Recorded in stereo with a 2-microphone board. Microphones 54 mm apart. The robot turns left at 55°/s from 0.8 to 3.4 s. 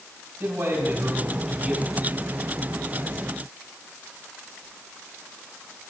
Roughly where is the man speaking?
Behind right.